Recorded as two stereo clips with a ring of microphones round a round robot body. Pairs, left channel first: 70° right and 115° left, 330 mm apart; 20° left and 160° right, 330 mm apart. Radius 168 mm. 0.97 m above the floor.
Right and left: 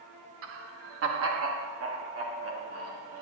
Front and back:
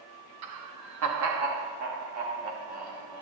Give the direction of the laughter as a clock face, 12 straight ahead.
7 o'clock.